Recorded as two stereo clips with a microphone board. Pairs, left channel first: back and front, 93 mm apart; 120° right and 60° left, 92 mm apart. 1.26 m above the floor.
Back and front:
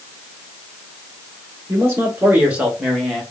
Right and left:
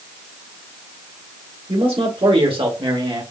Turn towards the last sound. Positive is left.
turn(degrees=85)